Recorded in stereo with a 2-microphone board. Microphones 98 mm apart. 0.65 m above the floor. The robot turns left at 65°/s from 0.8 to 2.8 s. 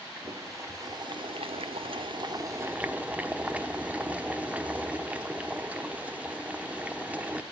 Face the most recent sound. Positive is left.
turn(degrees=-165)